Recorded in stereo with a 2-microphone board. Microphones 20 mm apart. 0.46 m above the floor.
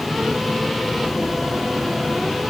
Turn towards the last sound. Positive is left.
No sound to turn to.